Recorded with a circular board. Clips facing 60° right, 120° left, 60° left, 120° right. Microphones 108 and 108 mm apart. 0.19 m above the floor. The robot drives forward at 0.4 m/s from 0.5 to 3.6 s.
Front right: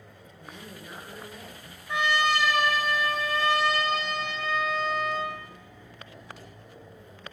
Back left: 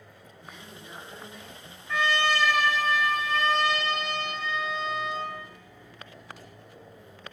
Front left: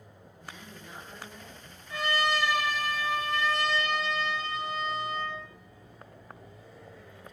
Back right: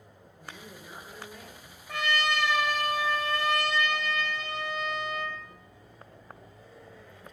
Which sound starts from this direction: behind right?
A trumpet, at 1.9 s.